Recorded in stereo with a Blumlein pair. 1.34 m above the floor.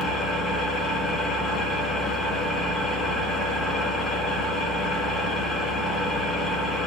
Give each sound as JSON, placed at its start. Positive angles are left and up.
{"t": 0.0, "sound": "an engine running", "azimuth_deg": 5, "distance_m": 1.9}